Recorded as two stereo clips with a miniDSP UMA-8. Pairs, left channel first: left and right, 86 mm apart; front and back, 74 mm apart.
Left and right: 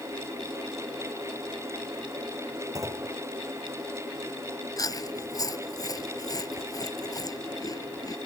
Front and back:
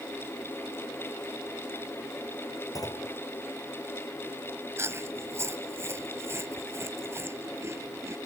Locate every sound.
2.8 s a clunk: 35° right
4.8 s chewing: 130° left